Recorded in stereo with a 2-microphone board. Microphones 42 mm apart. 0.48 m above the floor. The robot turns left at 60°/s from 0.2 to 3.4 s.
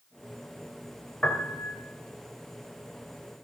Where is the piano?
145° left, 2.5 m; by 1.8 s 115° left, 2.5 m.